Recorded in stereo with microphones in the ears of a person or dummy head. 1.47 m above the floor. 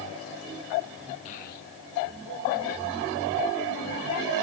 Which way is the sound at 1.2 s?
35° left (ahead or behind).